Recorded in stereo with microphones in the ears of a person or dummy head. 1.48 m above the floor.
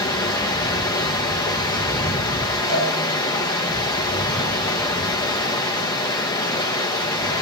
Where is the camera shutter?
I don't hear a camera shutter.